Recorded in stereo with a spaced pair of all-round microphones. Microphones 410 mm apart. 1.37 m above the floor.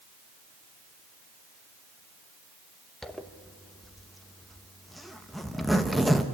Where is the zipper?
Centre (ahead or behind), 0.8 m.